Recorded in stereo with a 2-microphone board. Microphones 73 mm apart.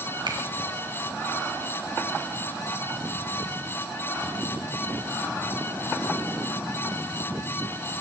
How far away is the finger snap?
About 4 m.